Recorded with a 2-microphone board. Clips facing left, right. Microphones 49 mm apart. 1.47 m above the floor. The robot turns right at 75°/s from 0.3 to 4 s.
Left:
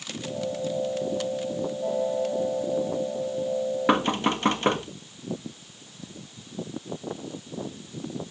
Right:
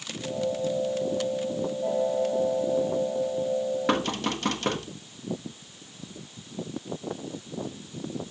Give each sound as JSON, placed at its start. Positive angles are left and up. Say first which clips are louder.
{"t": 3.9, "sound": "knocking", "louder": "left 4 dB", "side_deg": 15, "distance_m": 1.2}